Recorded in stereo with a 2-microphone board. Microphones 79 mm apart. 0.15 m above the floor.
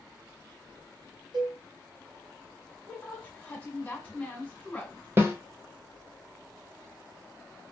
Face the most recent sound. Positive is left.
turn(degrees=-30)  # may be behind; listen again after turning